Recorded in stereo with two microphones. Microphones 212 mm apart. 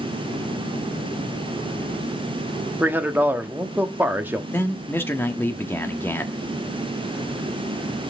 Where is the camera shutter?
No camera shutter in this recording.